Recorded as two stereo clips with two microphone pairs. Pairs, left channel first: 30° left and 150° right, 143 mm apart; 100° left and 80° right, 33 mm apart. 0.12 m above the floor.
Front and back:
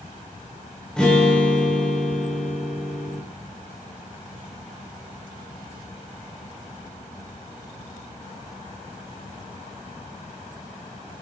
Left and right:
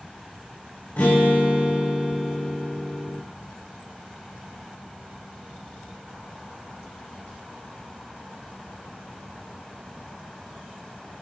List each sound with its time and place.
1.0 s a guitar: 115° left, 5 m